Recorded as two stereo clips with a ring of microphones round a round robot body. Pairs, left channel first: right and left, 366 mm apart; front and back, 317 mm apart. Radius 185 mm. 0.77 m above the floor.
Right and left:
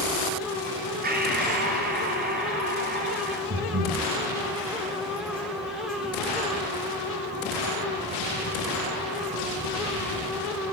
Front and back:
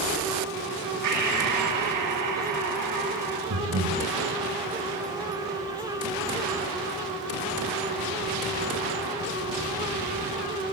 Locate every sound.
1.0 s breathing: 155° left, 9 m
3.5 s breathing: 145° left, 5 m